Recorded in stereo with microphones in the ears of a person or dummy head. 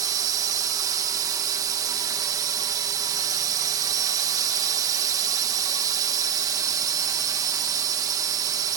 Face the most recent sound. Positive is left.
turn(degrees=-20)  # may be behind; listen again after turning